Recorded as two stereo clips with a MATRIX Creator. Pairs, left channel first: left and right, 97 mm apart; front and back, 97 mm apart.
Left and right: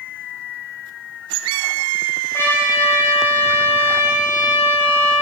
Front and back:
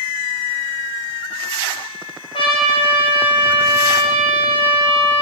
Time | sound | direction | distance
2.3 | a trumpet | 25° left | 0.6 m